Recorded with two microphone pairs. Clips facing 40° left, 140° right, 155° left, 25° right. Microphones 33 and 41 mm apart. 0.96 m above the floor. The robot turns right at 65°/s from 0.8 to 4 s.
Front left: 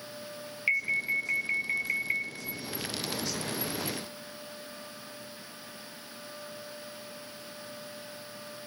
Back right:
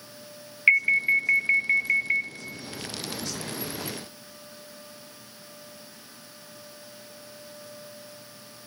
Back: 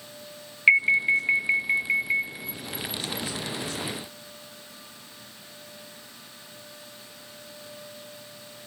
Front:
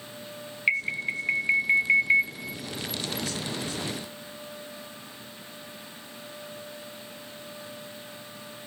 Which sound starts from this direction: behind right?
An alarm, at 0.7 s.